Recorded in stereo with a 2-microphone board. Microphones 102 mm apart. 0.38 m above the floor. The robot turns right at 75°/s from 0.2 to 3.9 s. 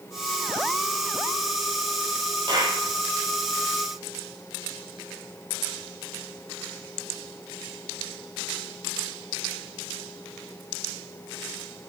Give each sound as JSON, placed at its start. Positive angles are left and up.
{"t": 2.5, "sound": "a clap", "side_deg": -50, "distance_m": 8.5}